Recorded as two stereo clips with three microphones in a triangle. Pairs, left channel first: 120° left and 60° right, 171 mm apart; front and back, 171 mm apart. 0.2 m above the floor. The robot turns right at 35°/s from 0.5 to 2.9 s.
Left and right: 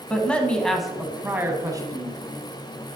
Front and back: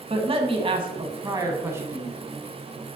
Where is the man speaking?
160° right, 1.1 m; by 2.2 s 100° right, 1.1 m.